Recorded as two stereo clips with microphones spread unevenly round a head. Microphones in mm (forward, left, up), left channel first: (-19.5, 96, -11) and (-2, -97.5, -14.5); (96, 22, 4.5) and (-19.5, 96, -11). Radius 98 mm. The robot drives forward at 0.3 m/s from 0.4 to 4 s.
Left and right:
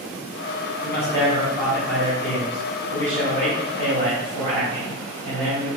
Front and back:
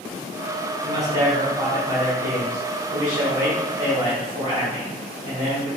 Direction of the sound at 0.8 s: 165° left.